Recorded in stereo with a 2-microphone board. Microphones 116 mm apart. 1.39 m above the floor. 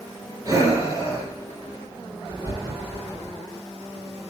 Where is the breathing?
30° right (ahead or behind), 9 m.